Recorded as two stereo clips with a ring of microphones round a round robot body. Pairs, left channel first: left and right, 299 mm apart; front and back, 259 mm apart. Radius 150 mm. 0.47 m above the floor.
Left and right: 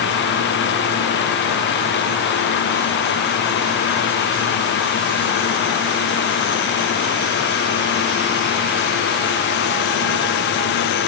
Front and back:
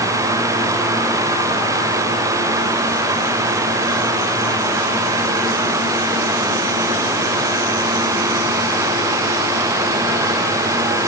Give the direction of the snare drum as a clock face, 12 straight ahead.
No snare drum in this recording.